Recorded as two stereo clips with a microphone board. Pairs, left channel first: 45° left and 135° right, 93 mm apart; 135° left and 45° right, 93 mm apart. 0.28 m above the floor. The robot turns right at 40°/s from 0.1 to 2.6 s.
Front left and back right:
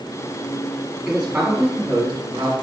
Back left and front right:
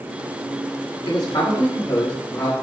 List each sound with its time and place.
1.1 s a man speaking: 140° left, 1.9 m; by 2.5 s 160° right, 1.9 m